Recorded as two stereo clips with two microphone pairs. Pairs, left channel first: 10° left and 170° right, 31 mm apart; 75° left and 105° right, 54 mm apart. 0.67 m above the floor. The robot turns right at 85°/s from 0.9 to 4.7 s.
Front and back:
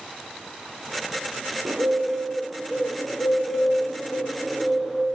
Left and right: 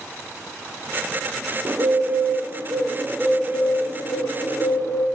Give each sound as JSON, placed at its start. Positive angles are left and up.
{"t": 1.6, "sound": "a bird", "azimuth_deg": -160, "distance_m": 3.5}